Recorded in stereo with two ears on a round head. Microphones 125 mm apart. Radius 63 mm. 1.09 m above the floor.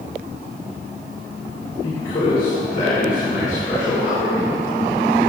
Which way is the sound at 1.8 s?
65° left (ahead or behind).